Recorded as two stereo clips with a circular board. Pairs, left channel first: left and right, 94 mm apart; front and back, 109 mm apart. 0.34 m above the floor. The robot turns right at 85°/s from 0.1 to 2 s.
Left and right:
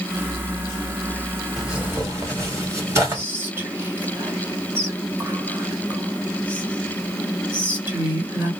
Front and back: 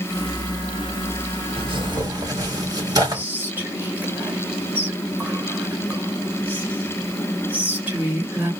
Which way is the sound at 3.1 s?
130° right.